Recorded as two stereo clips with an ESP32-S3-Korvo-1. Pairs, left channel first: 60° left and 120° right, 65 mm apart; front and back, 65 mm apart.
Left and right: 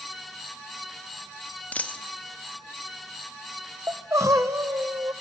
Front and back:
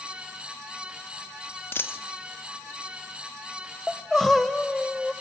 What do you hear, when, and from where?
1.7 s a dropped coin: 10° left, 1.3 m
3.9 s crying: 85° right, 1.2 m